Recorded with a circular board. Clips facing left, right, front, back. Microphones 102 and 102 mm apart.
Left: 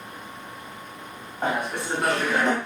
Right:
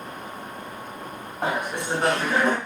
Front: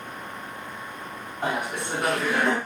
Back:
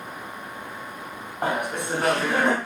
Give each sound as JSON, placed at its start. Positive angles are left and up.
{"t": 1.4, "sound": "laughter", "azimuth_deg": -170, "distance_m": 1.6}